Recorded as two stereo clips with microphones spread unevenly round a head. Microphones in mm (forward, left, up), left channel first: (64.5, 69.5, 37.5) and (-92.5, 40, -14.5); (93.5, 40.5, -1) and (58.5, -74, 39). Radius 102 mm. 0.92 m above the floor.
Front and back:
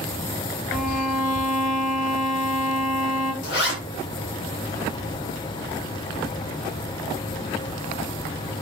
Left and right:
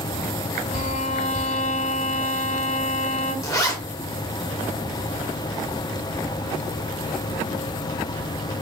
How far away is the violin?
About 1.5 m.